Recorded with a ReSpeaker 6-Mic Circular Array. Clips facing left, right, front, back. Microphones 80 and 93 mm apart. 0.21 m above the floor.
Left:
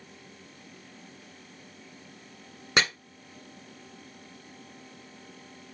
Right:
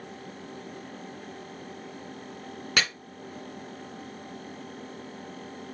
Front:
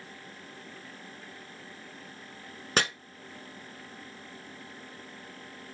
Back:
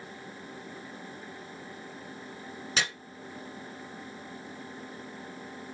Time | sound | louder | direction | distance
2.8 | chopping | left 2 dB, front 4 dB | 25° left | 1.1 m